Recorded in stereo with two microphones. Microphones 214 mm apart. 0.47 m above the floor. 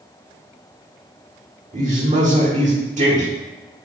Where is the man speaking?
40° right (ahead or behind), 0.9 m.